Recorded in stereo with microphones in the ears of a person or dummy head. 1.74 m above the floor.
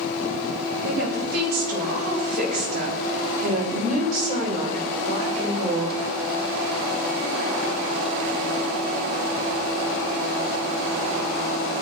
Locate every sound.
0.8 s a woman speaking: 70° right (ahead or behind), 8.5 m; by 6.0 s 40° right (ahead or behind), 5.5 m